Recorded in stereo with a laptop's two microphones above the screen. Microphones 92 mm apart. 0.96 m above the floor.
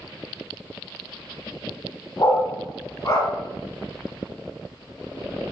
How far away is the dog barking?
About 1.6 m.